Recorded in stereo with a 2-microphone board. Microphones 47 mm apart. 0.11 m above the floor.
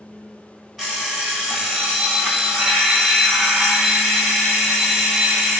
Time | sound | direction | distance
0.8 | an alarm clock | centre (ahead or behind) | 1.1 m